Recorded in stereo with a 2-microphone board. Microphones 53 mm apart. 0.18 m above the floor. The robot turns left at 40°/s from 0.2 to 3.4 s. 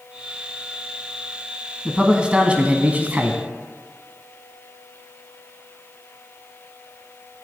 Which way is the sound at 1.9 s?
15° right (ahead or behind).